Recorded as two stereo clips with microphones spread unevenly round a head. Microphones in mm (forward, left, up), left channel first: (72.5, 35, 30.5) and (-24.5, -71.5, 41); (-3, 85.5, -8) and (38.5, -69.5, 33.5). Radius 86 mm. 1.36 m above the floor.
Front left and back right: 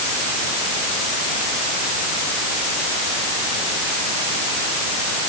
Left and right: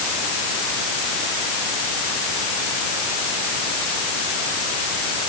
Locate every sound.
Only background noise.